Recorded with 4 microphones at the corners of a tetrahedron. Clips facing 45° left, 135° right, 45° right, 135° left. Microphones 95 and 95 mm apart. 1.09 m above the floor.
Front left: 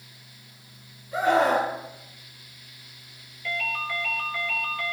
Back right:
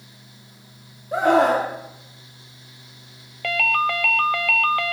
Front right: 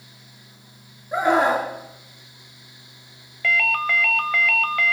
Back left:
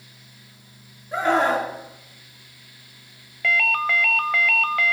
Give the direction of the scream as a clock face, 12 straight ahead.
4 o'clock.